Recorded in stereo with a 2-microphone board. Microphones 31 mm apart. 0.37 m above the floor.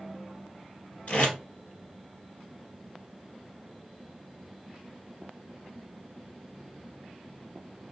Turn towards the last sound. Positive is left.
turn(degrees=50)  # may be behind; listen again after turning